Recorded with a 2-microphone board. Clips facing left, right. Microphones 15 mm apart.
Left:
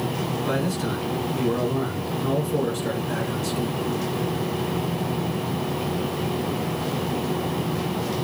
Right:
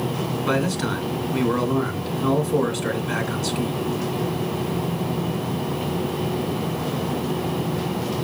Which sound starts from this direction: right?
A man speaking, at 0.5 s.